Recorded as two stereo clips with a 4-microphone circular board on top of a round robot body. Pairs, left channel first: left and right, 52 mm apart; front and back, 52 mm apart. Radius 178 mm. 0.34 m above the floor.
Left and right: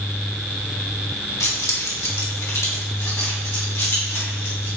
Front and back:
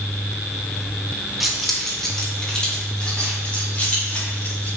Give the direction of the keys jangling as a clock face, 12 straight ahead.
9 o'clock.